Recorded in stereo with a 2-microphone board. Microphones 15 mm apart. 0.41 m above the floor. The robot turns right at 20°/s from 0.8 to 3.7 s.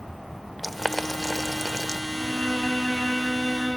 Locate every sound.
0.6 s boiling: 5° right (ahead or behind), 0.6 m; by 2.0 s 15° left (ahead or behind), 0.6 m
2.1 s a violin: 130° left, 9.5 m; by 3.8 s 160° left, 9.5 m